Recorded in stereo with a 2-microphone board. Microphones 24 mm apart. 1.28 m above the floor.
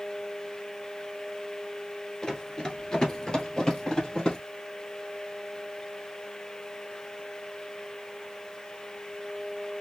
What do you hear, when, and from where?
2.2 s running footsteps: 20° left (ahead or behind), 1.4 m; by 4.4 s 30° left (ahead or behind), 2.5 m